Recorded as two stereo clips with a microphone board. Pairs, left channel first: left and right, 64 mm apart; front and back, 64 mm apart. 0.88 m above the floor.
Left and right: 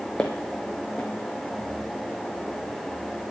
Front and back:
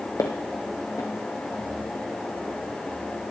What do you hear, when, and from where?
0.2 s footsteps: 20° left, 1.6 m